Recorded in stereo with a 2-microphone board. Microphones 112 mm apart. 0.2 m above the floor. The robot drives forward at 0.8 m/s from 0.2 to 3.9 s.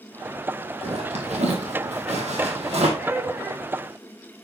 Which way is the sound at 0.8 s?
70° right (ahead or behind).